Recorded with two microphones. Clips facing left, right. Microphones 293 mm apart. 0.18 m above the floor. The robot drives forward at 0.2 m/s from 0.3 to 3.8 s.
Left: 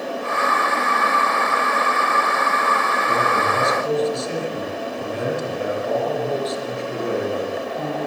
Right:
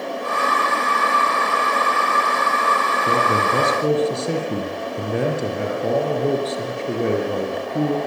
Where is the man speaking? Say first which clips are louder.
Right 3 dB; 75° right (ahead or behind), 6.5 m.